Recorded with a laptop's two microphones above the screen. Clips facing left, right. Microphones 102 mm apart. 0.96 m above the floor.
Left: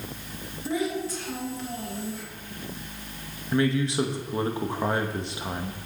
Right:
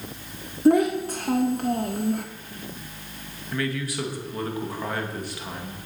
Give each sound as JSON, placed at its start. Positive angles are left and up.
{"t": 0.7, "sound": "a child speaking", "side_deg": -55, "distance_m": 0.6}
{"t": 3.5, "sound": "a man speaking", "side_deg": 25, "distance_m": 1.0}